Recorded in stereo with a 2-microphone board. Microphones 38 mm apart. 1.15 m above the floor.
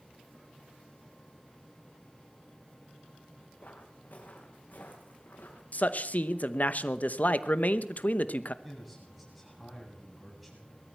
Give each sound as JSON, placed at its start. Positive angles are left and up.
{"t": 3.6, "sound": "footsteps", "side_deg": 50, "distance_m": 4.0}
{"t": 5.7, "sound": "a man speaking", "side_deg": 50, "distance_m": 0.8}
{"t": 8.6, "sound": "a man speaking", "side_deg": -5, "distance_m": 7.5}